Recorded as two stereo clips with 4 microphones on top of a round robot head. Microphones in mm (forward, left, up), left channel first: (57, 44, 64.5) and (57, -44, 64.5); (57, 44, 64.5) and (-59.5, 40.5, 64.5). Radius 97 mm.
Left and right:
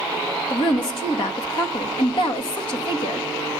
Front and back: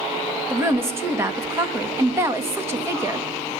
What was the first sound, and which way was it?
A woman speaking, 115° left.